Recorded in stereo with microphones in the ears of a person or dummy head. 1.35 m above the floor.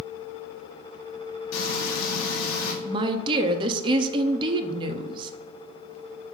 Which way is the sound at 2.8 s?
25° right (ahead or behind).